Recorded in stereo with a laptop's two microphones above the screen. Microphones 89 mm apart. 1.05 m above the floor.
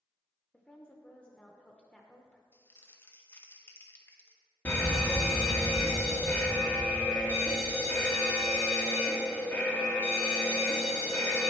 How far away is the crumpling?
About 0.9 m.